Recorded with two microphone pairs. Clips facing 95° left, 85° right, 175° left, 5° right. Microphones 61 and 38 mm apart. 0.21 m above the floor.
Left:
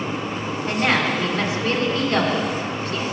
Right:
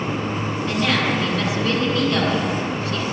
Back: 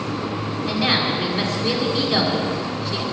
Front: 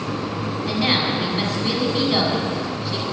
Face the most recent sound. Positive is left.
turn(degrees=80)